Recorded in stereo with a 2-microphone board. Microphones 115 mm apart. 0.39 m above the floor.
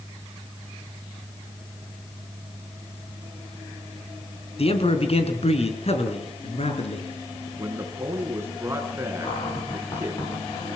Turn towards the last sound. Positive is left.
turn(degrees=45)  # may be behind; listen again after turning